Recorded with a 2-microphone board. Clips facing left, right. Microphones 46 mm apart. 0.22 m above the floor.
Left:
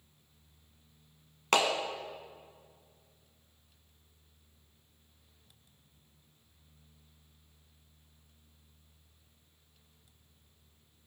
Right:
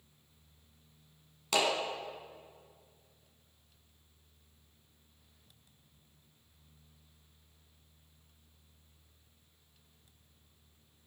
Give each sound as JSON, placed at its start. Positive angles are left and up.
{"t": 1.5, "sound": "a clap", "side_deg": 55, "distance_m": 1.2}